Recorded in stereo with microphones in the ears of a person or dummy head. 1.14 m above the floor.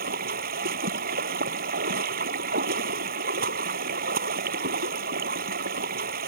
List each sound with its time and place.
0.0 s running water: 45° right (ahead or behind)